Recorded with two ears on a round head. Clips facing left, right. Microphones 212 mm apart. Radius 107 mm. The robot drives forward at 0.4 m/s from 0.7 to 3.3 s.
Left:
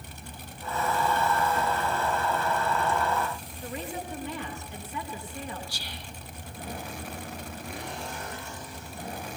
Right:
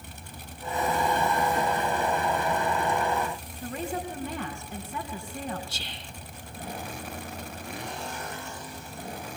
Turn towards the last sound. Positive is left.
turn(degrees=-20)  # may be behind; listen again after turning